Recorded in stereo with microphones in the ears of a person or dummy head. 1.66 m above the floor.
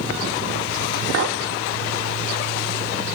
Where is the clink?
60° right (ahead or behind), 1.6 m.